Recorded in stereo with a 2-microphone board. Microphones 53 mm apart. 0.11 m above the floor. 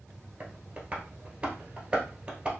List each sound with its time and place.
0.4 s tapping: 25° right (ahead or behind), 1.2 m